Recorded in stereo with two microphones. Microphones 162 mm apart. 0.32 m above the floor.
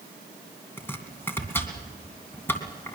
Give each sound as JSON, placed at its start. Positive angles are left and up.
{"t": 0.8, "sound": "chopping", "side_deg": 15, "distance_m": 2.5}